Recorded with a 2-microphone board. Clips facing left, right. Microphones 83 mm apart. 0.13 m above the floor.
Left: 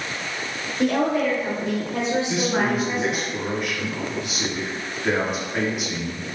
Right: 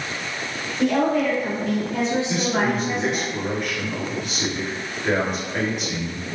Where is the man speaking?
5° left (ahead or behind), 1.6 m.